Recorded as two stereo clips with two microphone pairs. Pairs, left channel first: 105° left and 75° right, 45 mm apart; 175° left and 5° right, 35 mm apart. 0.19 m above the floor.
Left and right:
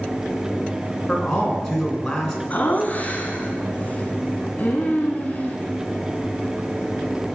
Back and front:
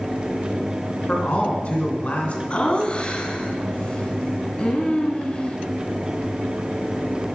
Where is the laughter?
145° left, 1.6 m.